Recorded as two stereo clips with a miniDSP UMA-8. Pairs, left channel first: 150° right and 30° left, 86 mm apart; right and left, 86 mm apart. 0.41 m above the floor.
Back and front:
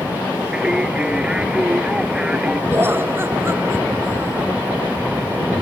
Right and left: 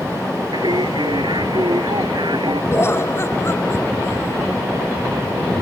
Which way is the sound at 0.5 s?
110° left.